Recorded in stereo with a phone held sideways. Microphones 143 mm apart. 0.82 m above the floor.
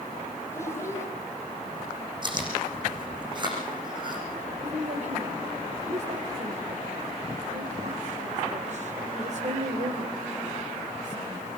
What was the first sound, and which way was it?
A child speaking, 20° left (ahead or behind).